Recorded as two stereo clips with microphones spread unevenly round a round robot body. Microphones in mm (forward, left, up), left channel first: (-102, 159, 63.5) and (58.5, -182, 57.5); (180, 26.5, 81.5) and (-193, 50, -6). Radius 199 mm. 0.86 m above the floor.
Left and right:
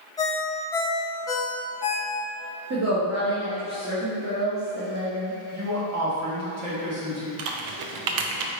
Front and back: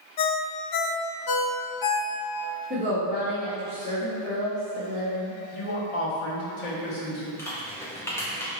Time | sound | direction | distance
0.2 | a ringtone | 35° left | 0.6 m
2.7 | a woman speaking | 120° right | 1.1 m
5.5 | a man speaking | 15° right | 1.1 m
7.4 | typing on a keyboard | 95° right | 0.5 m